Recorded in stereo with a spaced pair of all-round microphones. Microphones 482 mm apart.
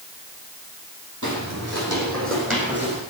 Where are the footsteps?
35° right (ahead or behind), 5 m; by 3.0 s 20° right (ahead or behind), 7 m.